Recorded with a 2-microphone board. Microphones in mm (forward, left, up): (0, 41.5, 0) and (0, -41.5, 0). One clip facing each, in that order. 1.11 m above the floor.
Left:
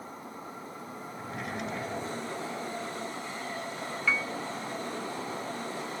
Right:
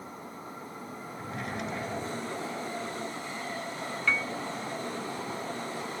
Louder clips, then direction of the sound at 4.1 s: Even; 5° left (ahead or behind).